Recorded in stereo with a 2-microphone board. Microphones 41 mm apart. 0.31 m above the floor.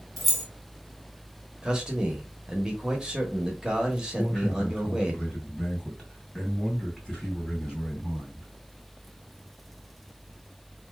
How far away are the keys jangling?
About 1.2 m.